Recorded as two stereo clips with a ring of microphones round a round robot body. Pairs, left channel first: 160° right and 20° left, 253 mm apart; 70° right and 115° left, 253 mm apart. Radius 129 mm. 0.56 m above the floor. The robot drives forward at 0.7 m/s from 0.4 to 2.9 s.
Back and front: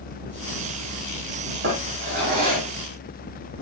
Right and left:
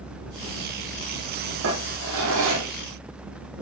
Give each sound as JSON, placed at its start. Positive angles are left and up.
{"t": 1.6, "sound": "a drawer", "azimuth_deg": 70, "distance_m": 8.0}